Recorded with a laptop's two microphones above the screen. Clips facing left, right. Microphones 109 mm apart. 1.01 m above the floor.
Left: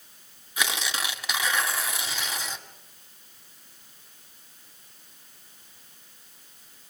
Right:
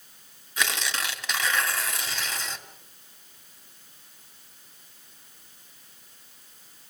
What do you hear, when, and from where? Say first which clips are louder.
0.6 s tearing paper: even; 5° left (ahead or behind), 2 m